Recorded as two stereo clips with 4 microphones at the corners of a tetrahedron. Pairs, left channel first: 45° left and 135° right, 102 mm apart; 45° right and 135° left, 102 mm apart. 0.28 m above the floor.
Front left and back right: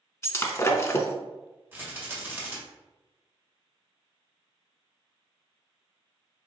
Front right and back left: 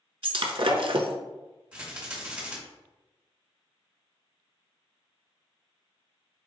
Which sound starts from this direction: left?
Breaking glass, at 0.2 s.